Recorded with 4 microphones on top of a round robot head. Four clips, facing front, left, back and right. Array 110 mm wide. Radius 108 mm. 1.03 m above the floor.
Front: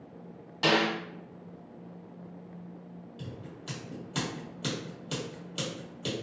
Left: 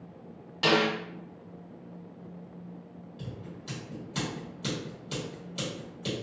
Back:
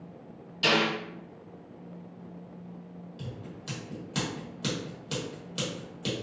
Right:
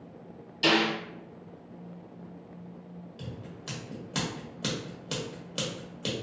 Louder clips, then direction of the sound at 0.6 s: Even, even; 45° left.